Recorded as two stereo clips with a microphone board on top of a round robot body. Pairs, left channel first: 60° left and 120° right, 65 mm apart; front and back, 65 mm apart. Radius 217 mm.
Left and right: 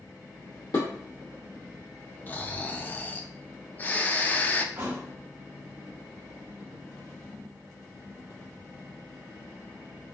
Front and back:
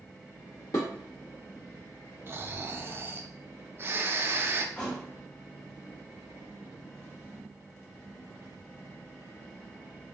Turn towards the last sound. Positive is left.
turn(degrees=-70)